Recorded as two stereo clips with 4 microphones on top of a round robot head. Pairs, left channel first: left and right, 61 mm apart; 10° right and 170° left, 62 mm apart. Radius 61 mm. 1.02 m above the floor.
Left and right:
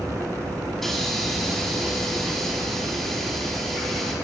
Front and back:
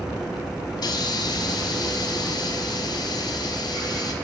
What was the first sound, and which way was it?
A hiss, 5° left.